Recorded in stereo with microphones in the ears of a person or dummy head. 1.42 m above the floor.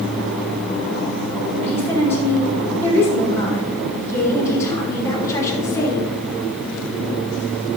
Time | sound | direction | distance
1.6 | a woman speaking | 15° left (ahead or behind) | 5 m